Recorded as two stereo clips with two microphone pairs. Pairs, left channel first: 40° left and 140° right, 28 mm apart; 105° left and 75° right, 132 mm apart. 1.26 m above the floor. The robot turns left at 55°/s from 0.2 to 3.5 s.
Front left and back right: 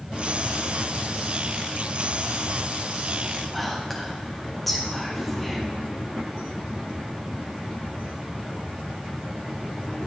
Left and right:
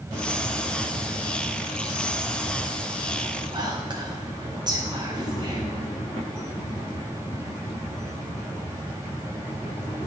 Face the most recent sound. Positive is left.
turn(degrees=-45)